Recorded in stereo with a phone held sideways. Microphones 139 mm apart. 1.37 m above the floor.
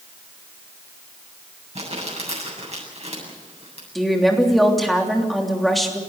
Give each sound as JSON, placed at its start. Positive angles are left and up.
{"t": 1.8, "sound": "crumpling", "side_deg": -50, "distance_m": 8.0}
{"t": 4.0, "sound": "a woman speaking", "side_deg": 0, "distance_m": 3.0}